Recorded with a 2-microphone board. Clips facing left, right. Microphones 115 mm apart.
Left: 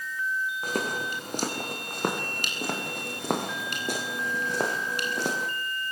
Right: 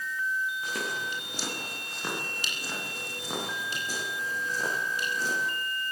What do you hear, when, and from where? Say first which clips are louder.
0.6 s footsteps: left 4 dB; 50° left (ahead or behind), 8 m; by 5.5 s 85° left, 7 m